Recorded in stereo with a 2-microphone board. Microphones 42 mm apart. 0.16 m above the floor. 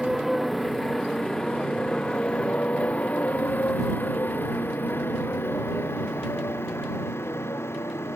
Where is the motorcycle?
5° right (ahead or behind); by 8.2 s 75° left (ahead or behind).